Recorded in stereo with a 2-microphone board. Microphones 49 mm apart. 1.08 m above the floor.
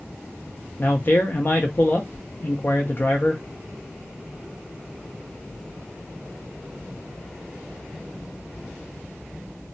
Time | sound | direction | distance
0.8 | a man speaking | 40° left (ahead or behind) | 0.6 m